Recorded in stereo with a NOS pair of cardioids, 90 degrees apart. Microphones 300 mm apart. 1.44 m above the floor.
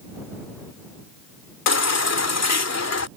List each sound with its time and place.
1.7 s a baby crying: 70° left